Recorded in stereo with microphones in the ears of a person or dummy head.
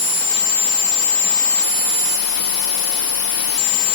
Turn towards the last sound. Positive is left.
No sound to turn to.